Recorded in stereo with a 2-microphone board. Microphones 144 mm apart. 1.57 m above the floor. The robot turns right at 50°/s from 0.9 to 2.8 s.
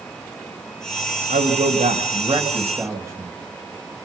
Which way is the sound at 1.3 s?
100° right.